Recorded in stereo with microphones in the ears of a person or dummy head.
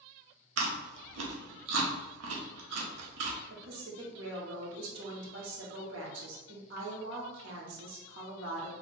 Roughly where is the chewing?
Right.